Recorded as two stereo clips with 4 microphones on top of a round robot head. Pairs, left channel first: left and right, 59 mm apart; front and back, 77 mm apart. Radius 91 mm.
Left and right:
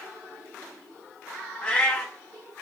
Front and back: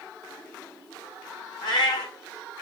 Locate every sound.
1.6 s a cat meowing: 25° left, 0.8 m